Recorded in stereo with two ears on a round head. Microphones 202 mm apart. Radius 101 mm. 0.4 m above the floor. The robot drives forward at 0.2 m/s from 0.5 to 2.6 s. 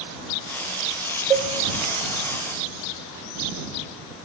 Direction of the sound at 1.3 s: 5° right (ahead or behind).